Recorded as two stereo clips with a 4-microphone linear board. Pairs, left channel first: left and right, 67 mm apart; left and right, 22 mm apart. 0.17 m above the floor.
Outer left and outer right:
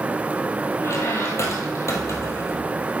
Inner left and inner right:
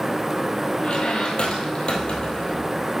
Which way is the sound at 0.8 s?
45° left (ahead or behind).